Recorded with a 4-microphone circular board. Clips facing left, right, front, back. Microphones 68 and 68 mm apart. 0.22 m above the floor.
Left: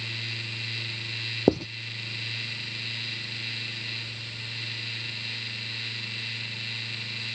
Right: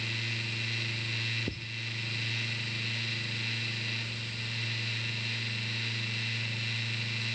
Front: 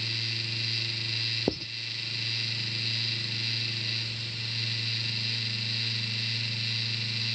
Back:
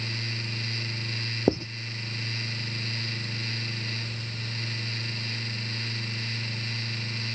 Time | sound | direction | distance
1.5 | writing | 110° left | ?